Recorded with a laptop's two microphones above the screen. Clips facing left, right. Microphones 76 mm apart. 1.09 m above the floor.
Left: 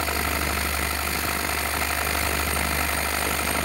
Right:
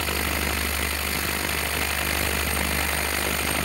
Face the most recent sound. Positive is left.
turn(degrees=30)  # may be behind; listen again after turning